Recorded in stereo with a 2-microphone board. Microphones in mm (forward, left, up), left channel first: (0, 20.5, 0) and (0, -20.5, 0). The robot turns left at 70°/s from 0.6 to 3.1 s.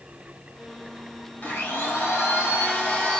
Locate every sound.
1.4 s a blender: 135° left, 2 m; by 3.2 s 15° left, 2 m